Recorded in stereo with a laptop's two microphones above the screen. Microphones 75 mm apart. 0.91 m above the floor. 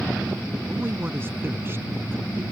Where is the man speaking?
30° right (ahead or behind).